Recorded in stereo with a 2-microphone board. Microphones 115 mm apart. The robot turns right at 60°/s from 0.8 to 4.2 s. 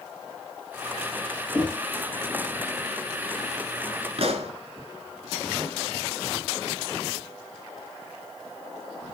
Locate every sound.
1.5 s knocking: 15° left (ahead or behind), 4.5 m; by 1.8 s 5° left (ahead or behind), 4.5 m
4.2 s a pop: 60° right (ahead or behind), 2 m